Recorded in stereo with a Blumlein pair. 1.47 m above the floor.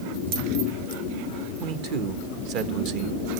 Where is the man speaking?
40° right, 1.5 m.